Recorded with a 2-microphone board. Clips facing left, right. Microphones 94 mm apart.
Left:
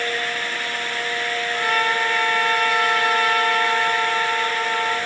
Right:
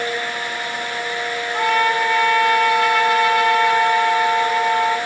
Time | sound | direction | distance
1.5 | a trumpet | 70° right (ahead or behind) | 4 m